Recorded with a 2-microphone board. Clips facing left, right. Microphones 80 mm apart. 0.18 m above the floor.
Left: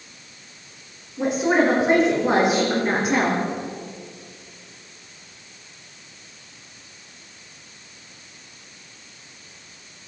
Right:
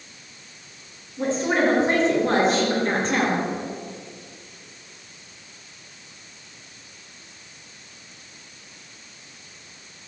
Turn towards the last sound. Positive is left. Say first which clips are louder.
# left 3 dB
turn(degrees=10)  # may be behind; listen again after turning